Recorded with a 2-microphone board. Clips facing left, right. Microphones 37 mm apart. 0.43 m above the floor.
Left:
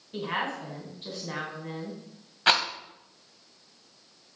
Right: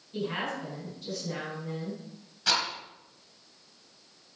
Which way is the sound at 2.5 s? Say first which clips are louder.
Left 5 dB; 40° left (ahead or behind).